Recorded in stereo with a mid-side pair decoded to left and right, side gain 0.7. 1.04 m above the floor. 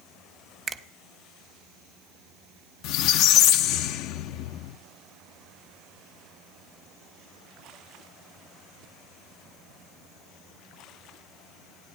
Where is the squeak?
65° left, 0.6 m.